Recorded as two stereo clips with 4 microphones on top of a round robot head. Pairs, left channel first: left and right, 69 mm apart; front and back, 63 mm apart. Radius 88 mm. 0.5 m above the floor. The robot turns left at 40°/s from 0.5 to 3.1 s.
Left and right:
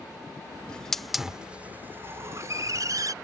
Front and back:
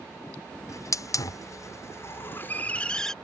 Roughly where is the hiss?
Ahead.